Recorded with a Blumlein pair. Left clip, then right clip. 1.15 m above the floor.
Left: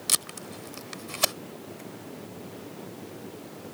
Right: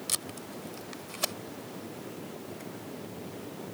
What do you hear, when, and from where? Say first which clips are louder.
0.1 s tape being pulled: left 7 dB; 20° left